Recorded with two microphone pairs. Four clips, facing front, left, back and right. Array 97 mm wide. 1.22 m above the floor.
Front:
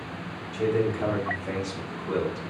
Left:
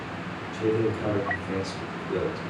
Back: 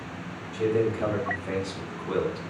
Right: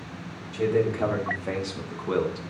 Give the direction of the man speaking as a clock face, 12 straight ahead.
3 o'clock.